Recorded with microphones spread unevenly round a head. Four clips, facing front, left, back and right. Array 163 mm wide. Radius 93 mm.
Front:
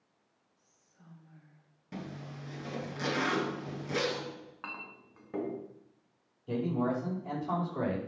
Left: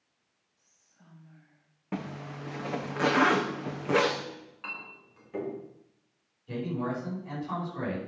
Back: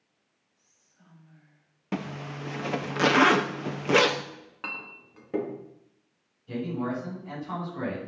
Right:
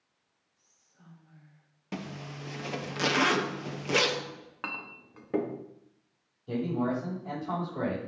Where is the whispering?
55° right, 6.5 m.